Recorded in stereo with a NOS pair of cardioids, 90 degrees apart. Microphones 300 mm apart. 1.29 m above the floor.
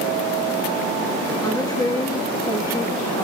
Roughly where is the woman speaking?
Ahead.